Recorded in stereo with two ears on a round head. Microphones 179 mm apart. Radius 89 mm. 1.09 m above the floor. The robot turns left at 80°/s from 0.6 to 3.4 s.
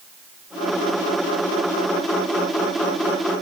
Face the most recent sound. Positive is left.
No sound to turn to.